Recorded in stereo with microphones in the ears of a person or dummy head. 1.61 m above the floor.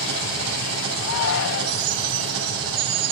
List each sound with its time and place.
0.0 s an engine running: 85° right, 8 m
1.0 s a shout: 75° left (ahead or behind), 2 m